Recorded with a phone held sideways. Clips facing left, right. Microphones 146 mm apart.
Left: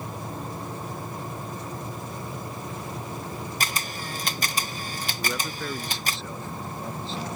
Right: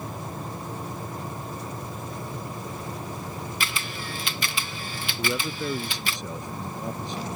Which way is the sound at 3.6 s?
40° left (ahead or behind).